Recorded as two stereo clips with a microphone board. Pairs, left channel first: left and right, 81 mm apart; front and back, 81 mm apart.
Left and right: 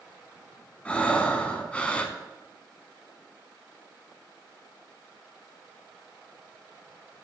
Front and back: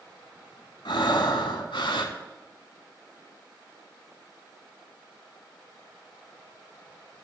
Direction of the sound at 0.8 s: 15° left.